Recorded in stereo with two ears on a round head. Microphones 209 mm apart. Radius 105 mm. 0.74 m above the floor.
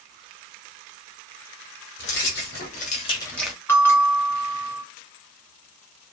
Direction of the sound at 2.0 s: 55° left (ahead or behind).